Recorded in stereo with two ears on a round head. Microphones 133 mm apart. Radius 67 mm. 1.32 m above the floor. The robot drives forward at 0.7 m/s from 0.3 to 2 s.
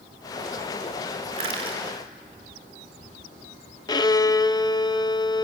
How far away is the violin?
About 0.7 m.